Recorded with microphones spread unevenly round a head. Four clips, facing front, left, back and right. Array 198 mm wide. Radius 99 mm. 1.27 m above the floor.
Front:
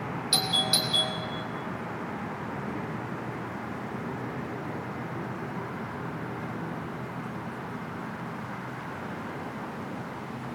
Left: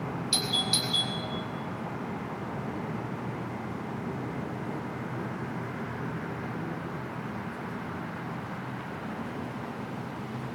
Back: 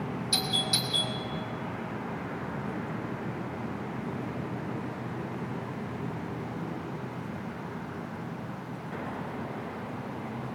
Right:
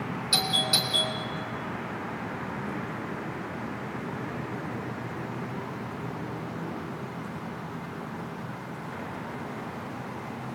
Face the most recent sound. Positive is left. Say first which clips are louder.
# right 7 dB, front 4 dB
turn(degrees=-40)